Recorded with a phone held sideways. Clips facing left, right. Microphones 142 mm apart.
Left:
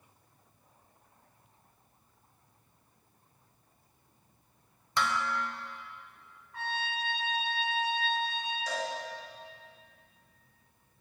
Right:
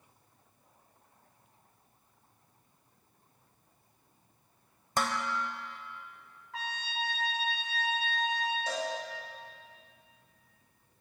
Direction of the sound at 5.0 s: 40° right (ahead or behind).